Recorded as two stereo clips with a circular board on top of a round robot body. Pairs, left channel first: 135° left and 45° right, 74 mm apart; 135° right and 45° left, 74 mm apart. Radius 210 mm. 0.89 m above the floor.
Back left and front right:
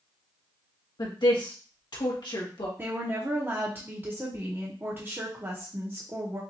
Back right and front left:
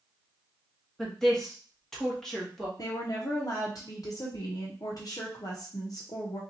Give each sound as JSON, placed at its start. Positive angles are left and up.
{"t": 1.0, "sound": "a woman speaking", "azimuth_deg": 140, "distance_m": 1.7}
{"t": 2.8, "sound": "a woman speaking", "azimuth_deg": -105, "distance_m": 1.0}